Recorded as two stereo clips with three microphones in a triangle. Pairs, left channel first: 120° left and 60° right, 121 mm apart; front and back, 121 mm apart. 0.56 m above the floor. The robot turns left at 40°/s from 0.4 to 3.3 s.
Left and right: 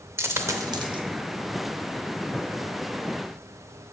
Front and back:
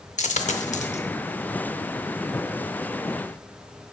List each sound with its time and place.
0.2 s a dropped coin: 5° left, 0.6 m; by 1.0 s 20° right, 0.6 m